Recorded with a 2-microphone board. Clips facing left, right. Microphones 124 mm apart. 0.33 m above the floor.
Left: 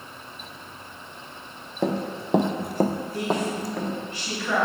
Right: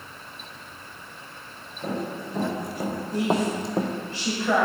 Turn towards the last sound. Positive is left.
turn(degrees=-30)  # may be behind; listen again after turning